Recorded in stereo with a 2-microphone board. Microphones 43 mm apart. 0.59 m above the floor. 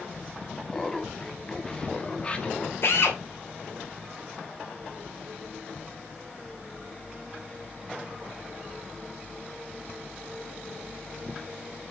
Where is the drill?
65° left (ahead or behind), 2.5 m.